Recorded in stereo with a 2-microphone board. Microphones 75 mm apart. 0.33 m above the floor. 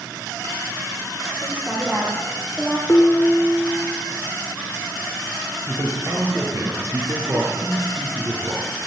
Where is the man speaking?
40° right (ahead or behind), 7.5 m.